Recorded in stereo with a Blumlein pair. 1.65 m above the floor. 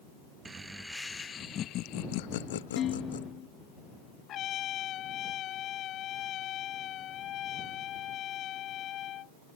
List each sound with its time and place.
0.5 s laughter: 15° right; by 3.2 s 70° left
2.8 s dishes clattering: 30° left
4.3 s a trumpet: 30° left